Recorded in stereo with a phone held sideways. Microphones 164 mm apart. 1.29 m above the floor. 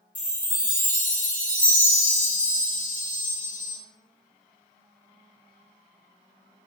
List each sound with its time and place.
0.1 s a chime: 55° left (ahead or behind), 0.6 m